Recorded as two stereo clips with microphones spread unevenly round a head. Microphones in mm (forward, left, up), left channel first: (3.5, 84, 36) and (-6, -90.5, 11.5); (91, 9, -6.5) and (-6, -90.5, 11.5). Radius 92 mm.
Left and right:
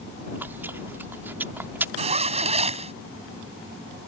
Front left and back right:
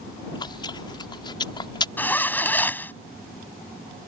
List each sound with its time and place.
0.3 s chewing: 15° right
2.0 s a zipper: 35° right